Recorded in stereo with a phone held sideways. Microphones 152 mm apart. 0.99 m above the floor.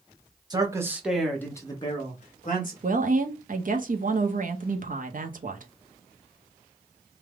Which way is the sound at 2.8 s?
55° right (ahead or behind).